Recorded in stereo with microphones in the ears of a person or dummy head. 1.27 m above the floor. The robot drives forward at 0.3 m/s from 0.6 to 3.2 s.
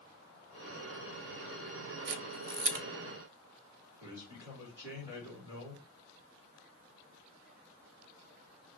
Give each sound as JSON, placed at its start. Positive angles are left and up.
{"t": 2.1, "sound": "a camera shutter", "side_deg": -55, "distance_m": 0.5}
{"t": 4.0, "sound": "a man speaking", "side_deg": -10, "distance_m": 1.8}